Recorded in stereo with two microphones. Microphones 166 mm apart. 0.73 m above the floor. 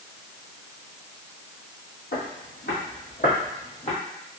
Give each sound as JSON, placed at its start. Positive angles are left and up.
{"t": 2.1, "sound": "footsteps", "side_deg": 70, "distance_m": 2.0}